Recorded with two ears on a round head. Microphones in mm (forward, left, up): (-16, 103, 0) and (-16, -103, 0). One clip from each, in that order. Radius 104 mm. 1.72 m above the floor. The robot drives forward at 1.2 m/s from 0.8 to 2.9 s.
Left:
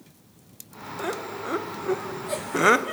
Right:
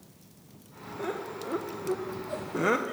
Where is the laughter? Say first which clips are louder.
Left 4 dB; 30° left (ahead or behind), 1.7 m; by 3.0 s 45° left (ahead or behind), 1.3 m.